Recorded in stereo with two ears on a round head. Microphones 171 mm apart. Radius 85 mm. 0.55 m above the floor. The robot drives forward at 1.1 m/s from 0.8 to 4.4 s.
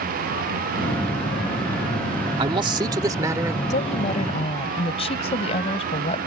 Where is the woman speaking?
40° left (ahead or behind); by 6.3 s 30° left (ahead or behind).